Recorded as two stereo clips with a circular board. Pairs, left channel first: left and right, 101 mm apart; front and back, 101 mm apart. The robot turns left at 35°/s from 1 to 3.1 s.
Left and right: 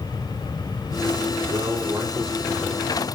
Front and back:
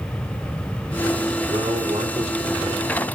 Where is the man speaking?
145° right, 4 m; by 3.1 s 160° left, 4 m.